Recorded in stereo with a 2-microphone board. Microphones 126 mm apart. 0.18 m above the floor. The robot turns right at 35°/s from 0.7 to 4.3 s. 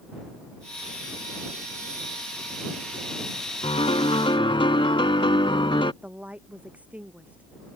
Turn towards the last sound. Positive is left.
turn(degrees=-10)  # may be behind; listen again after turning